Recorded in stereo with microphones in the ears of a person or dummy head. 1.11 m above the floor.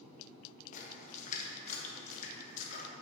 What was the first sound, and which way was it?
A splash, 45° left (ahead or behind).